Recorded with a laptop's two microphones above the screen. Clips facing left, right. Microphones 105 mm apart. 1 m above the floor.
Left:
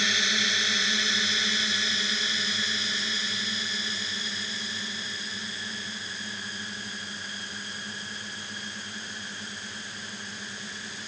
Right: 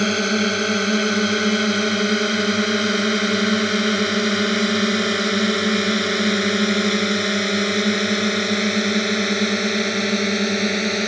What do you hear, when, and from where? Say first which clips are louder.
0.0 s a drone: right 12 dB; 50° right (ahead or behind); by 11.1 s 80° right